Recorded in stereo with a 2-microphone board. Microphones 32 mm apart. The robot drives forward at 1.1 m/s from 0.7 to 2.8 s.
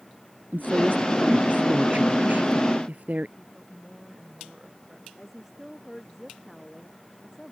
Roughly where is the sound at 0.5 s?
Right.